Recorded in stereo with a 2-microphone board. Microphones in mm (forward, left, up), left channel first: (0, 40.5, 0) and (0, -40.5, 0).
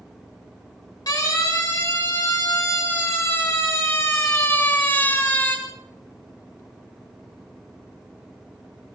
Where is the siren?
55° left (ahead or behind), 7 m; by 5.6 s 25° left (ahead or behind), 4 m.